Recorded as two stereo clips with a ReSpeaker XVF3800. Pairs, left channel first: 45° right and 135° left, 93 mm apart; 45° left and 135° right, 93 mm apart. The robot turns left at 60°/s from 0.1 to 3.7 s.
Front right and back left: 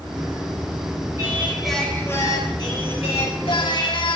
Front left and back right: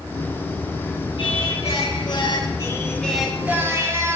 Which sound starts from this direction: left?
Singing, at 1.2 s.